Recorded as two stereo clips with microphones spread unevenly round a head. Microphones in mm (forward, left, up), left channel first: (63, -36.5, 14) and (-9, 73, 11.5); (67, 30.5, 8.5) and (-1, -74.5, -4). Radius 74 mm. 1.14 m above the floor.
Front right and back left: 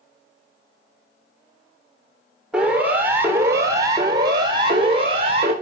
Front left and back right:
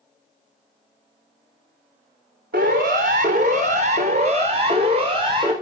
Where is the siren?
155° right, 4 m; by 5.5 s 175° left, 5 m.